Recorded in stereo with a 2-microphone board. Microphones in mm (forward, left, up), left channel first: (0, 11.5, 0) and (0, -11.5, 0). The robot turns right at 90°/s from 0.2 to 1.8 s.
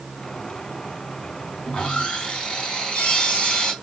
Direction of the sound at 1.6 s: 35° left (ahead or behind).